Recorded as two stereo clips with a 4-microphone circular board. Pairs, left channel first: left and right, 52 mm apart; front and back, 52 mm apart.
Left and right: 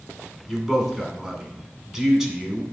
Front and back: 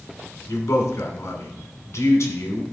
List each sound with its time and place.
0.5 s a man speaking: 10° right, 2.5 m